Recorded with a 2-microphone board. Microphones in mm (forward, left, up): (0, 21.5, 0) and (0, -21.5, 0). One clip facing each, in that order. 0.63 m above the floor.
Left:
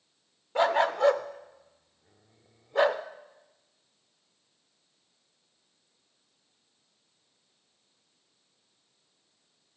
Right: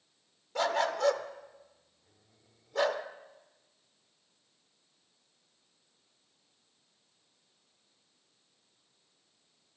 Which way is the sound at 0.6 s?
25° left (ahead or behind).